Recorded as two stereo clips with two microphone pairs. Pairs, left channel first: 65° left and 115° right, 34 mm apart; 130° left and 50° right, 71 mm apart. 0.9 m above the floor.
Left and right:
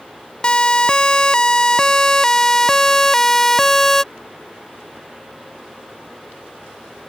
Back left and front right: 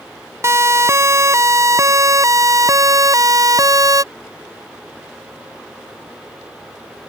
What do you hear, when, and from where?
0.4 s a siren: straight ahead; by 4.0 s 15° right